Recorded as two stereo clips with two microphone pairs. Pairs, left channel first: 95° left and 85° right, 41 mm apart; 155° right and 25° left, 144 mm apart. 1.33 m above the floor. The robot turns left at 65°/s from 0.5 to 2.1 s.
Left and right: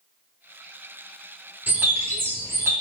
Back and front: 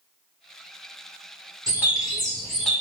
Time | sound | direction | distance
1.7 | a bird | 40° right | 0.9 m